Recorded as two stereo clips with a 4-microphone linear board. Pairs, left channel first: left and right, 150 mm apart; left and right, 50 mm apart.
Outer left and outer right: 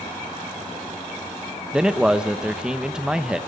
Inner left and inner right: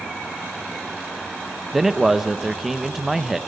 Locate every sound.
1.7 s a man speaking: 5° right (ahead or behind), 1.1 m